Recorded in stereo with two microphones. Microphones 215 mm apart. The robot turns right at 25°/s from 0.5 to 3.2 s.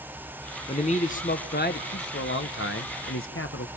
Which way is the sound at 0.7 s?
30° left.